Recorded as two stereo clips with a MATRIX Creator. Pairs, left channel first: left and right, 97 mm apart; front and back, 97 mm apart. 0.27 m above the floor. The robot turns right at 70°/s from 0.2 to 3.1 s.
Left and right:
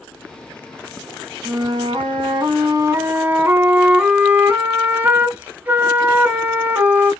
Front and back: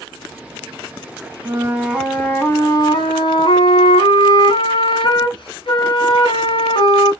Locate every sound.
1.4 s a flute: 135° right, 1.5 m; by 7.1 s 20° right, 1.5 m